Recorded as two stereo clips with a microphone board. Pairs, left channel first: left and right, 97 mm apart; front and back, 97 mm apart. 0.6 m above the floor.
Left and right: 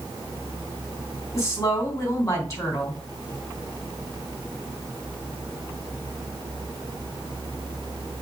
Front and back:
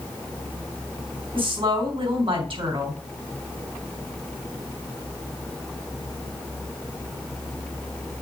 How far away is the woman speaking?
About 4 m.